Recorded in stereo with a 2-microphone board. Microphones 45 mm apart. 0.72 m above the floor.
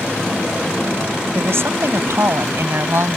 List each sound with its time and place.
1.4 s a woman speaking: 65° right (ahead or behind); by 3.2 s 70° right (ahead or behind)